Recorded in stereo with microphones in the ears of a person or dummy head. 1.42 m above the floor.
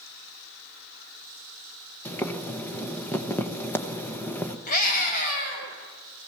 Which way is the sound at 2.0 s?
15° left (ahead or behind).